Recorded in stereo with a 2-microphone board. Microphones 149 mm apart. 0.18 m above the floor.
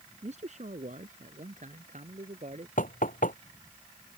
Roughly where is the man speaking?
Right.